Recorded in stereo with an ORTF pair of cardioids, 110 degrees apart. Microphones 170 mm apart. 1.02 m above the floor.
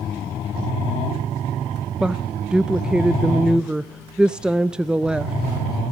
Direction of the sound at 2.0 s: 5° right.